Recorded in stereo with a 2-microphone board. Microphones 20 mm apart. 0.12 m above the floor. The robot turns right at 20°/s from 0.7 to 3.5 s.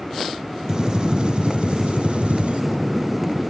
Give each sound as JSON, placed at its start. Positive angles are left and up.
{"t": 0.7, "sound": "a gunshot", "azimuth_deg": -145, "distance_m": 3.0}